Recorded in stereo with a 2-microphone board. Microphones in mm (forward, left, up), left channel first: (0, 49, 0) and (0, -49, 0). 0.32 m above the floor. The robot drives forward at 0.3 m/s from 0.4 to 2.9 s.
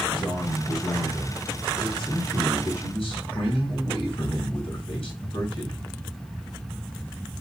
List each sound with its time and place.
0.1 s a man speaking: 55° left (ahead or behind), 3 m; by 5.8 s 65° left (ahead or behind), 2.5 m